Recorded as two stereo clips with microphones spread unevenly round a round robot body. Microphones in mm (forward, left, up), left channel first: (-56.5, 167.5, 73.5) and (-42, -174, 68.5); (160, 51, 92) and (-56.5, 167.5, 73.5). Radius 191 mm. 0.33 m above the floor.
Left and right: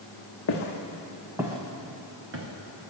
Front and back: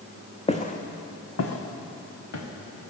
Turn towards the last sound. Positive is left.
turn(degrees=-40)